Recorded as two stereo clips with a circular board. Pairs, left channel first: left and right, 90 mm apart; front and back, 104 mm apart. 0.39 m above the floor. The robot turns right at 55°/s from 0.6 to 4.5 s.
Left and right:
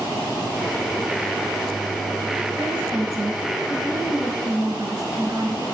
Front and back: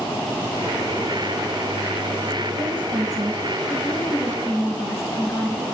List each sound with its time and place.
2.6 s a woman speaking: 160° right, 1.8 m; by 5.6 s 55° right, 1.8 m